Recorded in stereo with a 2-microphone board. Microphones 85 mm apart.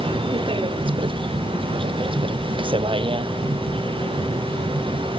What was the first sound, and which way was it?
A vehicle, 85° right.